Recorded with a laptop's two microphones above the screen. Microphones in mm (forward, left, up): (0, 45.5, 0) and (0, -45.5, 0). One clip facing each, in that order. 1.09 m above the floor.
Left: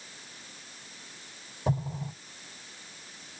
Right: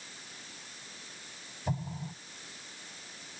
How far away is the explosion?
About 3 m.